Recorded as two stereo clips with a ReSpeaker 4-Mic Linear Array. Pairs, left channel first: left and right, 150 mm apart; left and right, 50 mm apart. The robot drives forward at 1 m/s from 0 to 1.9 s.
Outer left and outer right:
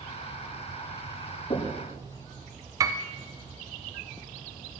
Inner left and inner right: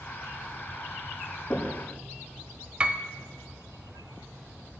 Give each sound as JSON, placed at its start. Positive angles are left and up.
{"t": 1.5, "sound": "knocking", "side_deg": 40, "distance_m": 6.5}
{"t": 2.8, "sound": "a piano", "side_deg": -20, "distance_m": 0.6}